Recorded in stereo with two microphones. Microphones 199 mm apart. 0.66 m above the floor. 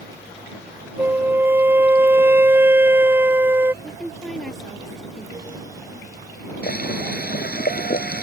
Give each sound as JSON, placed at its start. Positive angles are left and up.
{"t": 1.0, "sound": "a flute", "side_deg": -10}
{"t": 3.8, "sound": "a woman speaking", "side_deg": 0}
{"t": 6.6, "sound": "boiling", "side_deg": 50}